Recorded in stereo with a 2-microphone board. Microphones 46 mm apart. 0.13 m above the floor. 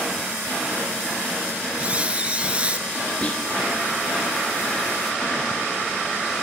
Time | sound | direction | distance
1.8 | a squeak | 25° right (ahead or behind) | 1.0 m
3.2 | whispering | 30° left (ahead or behind) | 1.9 m